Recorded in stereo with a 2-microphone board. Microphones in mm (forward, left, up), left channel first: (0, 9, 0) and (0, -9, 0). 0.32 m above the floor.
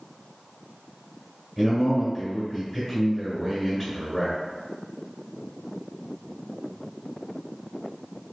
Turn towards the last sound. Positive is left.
turn(degrees=-10)  # may be behind; listen again after turning